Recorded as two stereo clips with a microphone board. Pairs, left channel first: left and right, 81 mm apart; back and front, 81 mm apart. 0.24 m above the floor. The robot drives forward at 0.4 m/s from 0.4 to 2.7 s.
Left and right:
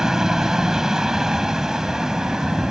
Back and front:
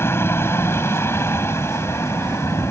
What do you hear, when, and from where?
0.0 s a helicopter: 170° right